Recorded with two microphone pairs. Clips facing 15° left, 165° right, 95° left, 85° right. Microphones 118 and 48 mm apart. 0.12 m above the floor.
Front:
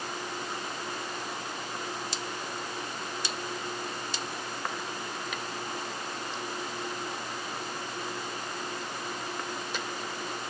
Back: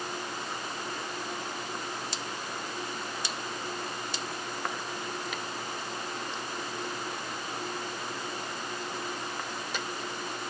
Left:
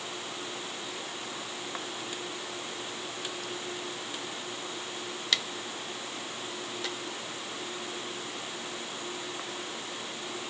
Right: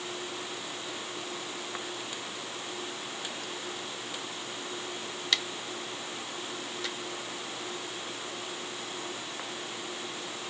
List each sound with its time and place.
Only background noise.